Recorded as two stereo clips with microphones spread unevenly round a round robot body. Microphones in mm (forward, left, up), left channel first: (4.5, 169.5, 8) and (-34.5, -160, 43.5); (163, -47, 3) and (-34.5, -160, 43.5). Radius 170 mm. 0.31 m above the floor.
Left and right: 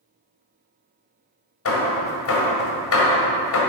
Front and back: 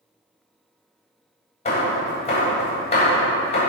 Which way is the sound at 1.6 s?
70° left.